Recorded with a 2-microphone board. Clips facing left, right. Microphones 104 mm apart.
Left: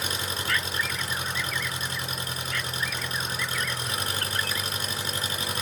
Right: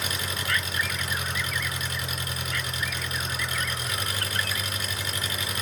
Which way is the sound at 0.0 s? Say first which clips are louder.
Even; 30° left (ahead or behind).